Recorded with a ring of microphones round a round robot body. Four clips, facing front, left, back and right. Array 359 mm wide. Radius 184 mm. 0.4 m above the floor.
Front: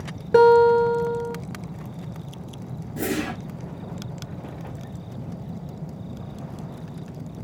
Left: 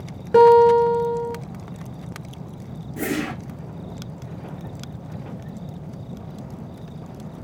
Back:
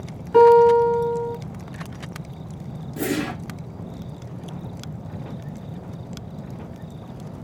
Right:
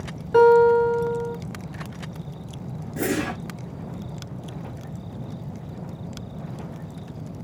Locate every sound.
0.3 s a guitar: 40° left, 0.8 m
3.0 s a whoosh: 115° right, 1.0 m